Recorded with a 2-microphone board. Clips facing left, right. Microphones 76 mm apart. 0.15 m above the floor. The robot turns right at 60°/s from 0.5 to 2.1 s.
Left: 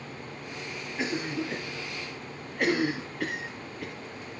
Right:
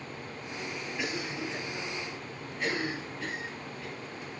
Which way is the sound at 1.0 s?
25° left (ahead or behind).